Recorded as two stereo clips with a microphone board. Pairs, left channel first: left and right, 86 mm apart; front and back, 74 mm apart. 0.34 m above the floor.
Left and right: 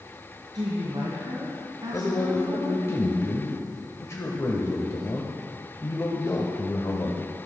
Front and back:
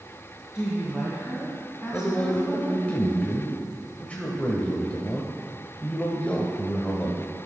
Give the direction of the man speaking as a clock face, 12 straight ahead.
10 o'clock.